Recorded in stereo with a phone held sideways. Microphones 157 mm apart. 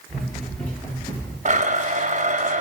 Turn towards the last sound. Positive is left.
turn(degrees=-50)  # may be behind; listen again after turning